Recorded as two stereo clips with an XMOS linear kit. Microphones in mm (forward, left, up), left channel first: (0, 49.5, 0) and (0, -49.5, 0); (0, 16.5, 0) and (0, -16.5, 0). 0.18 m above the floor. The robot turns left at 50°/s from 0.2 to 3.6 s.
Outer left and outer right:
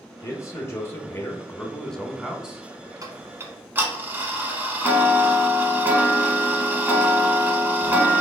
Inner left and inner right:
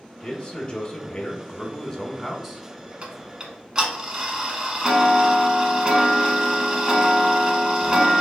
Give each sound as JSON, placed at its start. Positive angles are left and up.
{"t": 0.2, "sound": "a man speaking", "azimuth_deg": 100, "distance_m": 1.1}
{"t": 3.0, "sound": "ticking", "side_deg": -35, "distance_m": 1.0}